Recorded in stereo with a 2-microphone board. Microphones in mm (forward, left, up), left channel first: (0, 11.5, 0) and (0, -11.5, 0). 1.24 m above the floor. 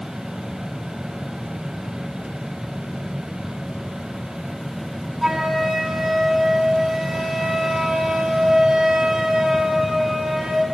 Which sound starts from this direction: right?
A flute, at 5.2 s.